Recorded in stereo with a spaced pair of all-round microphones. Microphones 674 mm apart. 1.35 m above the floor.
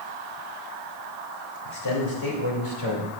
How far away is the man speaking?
About 3 m.